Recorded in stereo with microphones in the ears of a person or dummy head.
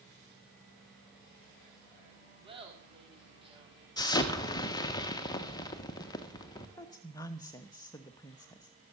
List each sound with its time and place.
2.4 s laughter: 25° right (ahead or behind), 3.5 m
4.0 s an explosion: 20° left (ahead or behind), 1.3 m
6.8 s a woman speaking: 20° left (ahead or behind), 1.2 m